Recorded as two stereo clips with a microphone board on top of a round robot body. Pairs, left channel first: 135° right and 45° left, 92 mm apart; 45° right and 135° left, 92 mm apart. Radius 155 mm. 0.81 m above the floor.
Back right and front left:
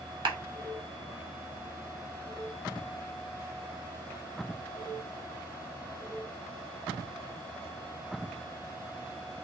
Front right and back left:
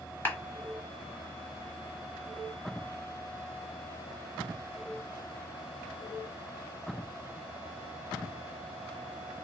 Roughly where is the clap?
Ahead.